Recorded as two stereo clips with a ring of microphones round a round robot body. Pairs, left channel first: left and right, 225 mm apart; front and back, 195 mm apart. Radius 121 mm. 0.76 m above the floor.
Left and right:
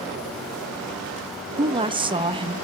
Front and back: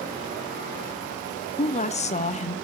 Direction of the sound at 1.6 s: 35° right.